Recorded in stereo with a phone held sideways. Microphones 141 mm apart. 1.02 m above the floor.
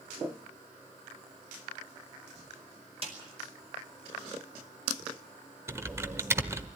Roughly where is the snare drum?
Right.